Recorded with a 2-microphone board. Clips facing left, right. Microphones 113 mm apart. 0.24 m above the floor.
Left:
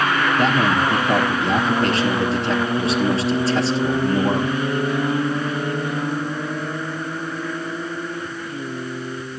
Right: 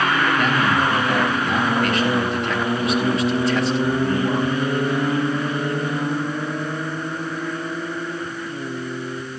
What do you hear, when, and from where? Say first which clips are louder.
0.4 s a man speaking: left 1 dB; 35° left (ahead or behind), 3 m